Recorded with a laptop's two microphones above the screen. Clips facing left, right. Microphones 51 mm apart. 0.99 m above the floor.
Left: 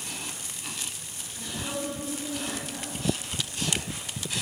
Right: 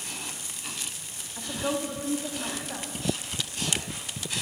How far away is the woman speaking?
About 1.5 m.